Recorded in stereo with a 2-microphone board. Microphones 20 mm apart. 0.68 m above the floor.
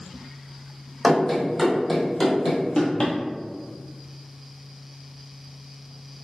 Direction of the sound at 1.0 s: 15° left (ahead or behind).